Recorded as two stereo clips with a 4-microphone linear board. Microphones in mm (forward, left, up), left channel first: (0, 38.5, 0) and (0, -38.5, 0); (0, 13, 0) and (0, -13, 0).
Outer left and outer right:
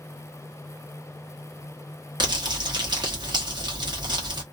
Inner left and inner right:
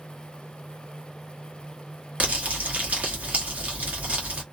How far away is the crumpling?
About 1.1 m.